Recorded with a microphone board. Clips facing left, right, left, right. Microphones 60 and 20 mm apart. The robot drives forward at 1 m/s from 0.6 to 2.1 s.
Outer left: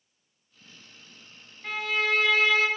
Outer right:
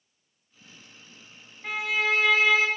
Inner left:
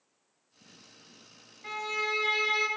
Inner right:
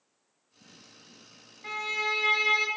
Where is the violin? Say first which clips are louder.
Outer right 1 dB, inner right 2 dB; 10° right (ahead or behind), 1.5 m.